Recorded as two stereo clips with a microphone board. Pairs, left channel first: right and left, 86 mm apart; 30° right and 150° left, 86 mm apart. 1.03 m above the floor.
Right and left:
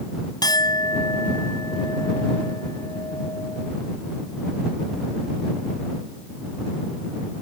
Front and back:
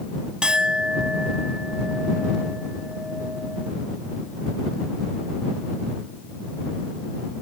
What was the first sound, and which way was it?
A clink, 130° right.